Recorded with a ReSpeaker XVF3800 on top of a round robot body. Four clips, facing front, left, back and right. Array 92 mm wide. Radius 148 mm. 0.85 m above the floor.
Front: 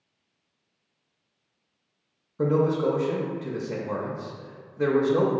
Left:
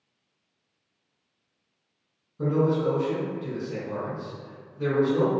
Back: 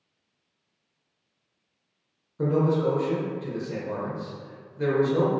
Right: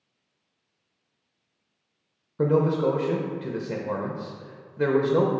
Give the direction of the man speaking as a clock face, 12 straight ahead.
2 o'clock.